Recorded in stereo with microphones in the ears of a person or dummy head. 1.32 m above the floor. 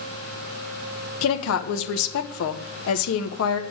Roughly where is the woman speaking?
Left.